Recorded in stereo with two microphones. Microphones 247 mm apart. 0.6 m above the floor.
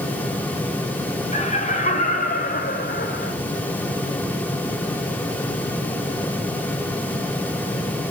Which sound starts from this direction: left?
Laughter, at 1.3 s.